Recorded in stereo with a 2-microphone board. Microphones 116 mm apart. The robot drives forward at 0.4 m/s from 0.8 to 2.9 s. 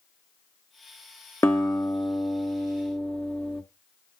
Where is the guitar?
25° left (ahead or behind), 1.5 m; by 3.6 s 15° left (ahead or behind), 2 m.